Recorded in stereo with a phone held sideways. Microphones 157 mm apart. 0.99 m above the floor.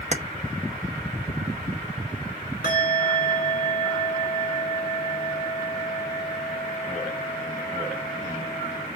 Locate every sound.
0.1 s keys jangling: 45° right (ahead or behind), 0.6 m
2.6 s a bell: 80° left, 3.5 m